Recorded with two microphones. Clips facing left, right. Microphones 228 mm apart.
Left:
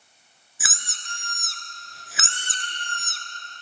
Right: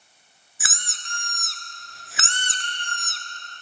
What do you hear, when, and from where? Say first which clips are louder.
0.6 s a squeak: right 1 dB; centre (ahead or behind), 0.7 m